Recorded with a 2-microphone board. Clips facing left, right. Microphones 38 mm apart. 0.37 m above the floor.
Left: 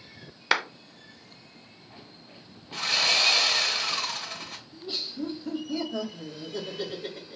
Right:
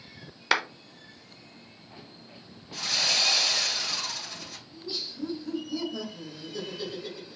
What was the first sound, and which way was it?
A clap, centre (ahead or behind).